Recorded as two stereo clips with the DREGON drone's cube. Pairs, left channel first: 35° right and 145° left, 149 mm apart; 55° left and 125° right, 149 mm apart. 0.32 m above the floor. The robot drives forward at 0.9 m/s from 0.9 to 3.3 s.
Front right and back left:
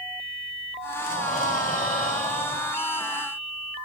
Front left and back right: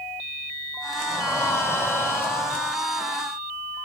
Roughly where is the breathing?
Ahead.